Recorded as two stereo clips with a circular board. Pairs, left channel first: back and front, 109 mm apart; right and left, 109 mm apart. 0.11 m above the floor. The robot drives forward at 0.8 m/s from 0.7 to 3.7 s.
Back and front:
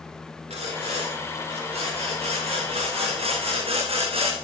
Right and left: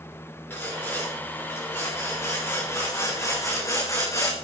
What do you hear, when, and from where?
0.5 s sawing: 20° right, 6.5 m; by 4.3 s 25° right, 4.5 m